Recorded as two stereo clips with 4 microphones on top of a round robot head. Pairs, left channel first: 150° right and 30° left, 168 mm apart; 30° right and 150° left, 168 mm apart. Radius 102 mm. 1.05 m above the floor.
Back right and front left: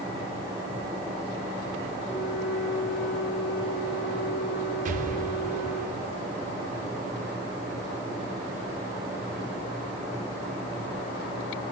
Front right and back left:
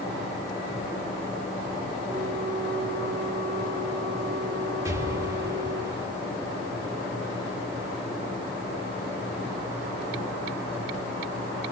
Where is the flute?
105° right, 3 m.